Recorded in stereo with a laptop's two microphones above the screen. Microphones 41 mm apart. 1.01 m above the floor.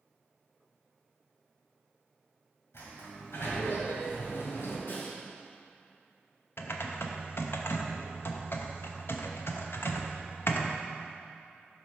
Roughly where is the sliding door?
Left.